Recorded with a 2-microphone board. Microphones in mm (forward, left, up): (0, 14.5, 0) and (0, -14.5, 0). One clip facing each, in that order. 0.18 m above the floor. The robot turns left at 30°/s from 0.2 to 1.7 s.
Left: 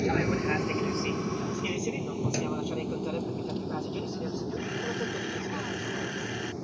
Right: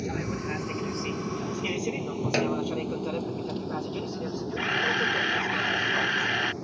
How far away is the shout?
No shout in this recording.